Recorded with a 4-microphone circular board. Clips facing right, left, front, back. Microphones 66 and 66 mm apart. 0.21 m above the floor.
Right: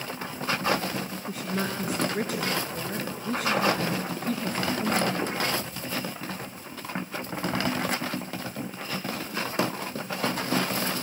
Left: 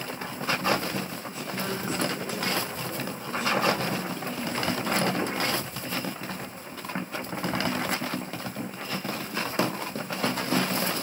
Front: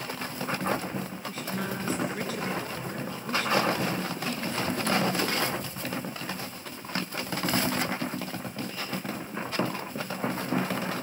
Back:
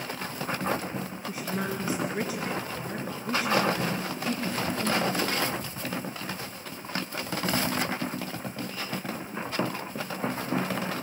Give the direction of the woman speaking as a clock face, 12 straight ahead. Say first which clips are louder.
Right 4 dB, back 3 dB; 4 o'clock.